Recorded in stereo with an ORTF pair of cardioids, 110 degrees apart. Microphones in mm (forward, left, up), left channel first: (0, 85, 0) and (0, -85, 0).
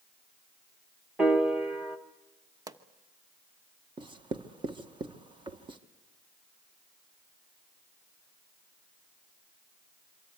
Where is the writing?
30° right, 1.5 m.